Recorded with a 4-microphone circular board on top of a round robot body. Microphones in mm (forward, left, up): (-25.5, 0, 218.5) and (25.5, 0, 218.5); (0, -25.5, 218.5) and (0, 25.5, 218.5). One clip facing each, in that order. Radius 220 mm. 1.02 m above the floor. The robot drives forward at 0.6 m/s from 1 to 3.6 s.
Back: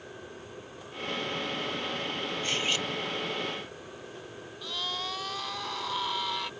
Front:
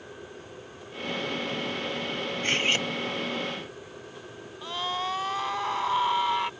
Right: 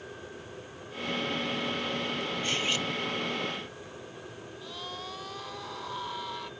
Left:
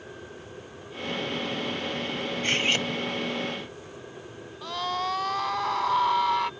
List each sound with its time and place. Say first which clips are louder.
2.4 s cutlery clinking: front 6 dB, left 7 dB; 45° left; by 2.9 s 50° left
4.6 s a scream: front 5 dB, left 13 dB; 65° left